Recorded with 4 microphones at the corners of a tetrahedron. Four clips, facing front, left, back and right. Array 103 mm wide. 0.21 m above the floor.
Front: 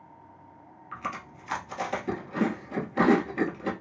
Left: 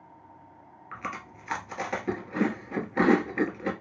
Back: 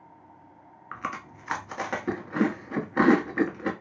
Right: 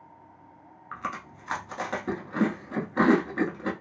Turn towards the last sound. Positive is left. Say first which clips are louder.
# right 2 dB, back 1 dB
turn(degrees=-160)